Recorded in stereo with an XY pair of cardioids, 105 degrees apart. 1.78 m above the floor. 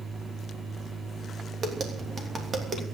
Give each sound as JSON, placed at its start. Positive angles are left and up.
{"t": 0.0, "sound": "a machine running", "azimuth_deg": -35, "distance_m": 2.5}
{"t": 1.6, "sound": "tapping", "azimuth_deg": -45, "distance_m": 3.0}